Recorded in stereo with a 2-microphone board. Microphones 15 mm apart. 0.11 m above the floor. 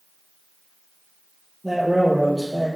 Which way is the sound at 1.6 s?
30° right (ahead or behind).